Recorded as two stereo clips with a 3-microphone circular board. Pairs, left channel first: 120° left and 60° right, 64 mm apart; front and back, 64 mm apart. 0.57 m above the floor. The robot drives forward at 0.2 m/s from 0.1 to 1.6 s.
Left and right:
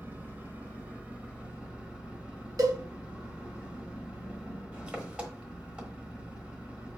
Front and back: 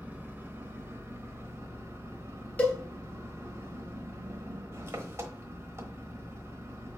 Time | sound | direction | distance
0.0 | an engine running | 115° right | 0.9 m
2.6 | a cowbell | 70° right | 1.4 m